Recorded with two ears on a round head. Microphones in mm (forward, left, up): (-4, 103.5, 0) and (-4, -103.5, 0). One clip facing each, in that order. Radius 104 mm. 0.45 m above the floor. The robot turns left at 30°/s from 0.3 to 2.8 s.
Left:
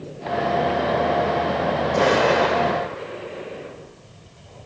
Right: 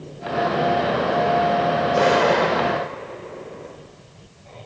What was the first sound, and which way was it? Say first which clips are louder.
An explosion: even; 5° right (ahead or behind).